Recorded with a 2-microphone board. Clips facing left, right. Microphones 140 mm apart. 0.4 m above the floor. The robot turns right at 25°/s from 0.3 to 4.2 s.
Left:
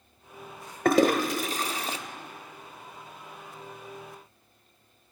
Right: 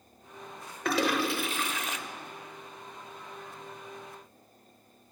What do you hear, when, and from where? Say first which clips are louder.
0.8 s a toilet flushing: left 6 dB; 50° left (ahead or behind), 0.6 m; by 2.0 s 35° left (ahead or behind), 0.6 m